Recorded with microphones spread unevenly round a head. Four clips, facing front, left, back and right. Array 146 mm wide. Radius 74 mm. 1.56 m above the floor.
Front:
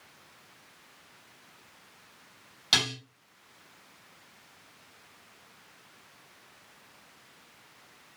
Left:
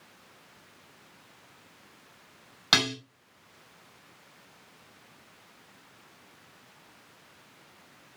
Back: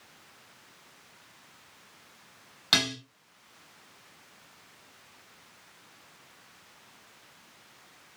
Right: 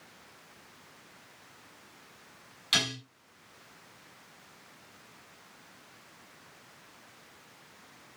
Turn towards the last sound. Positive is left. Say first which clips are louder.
# left 6 dB, back 2 dB
turn(degrees=100)